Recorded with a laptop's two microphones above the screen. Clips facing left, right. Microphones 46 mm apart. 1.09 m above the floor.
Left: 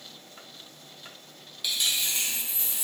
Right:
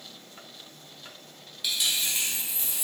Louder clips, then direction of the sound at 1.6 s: Even; centre (ahead or behind).